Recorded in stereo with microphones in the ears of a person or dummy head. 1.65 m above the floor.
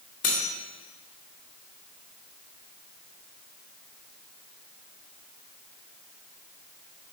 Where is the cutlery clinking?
45° left (ahead or behind), 1.3 m.